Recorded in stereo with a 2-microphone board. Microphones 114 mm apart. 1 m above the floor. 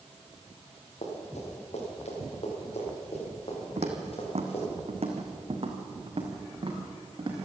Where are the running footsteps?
70° left (ahead or behind), 6.5 m; by 4.6 s 60° left (ahead or behind), 7.5 m.